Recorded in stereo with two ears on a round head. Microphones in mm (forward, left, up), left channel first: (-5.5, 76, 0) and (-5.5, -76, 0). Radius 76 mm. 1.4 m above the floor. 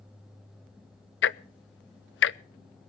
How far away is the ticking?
About 0.6 m.